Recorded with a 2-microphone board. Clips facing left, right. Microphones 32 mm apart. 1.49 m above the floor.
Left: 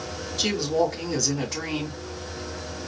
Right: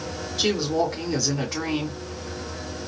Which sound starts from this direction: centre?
A woman speaking, at 0.4 s.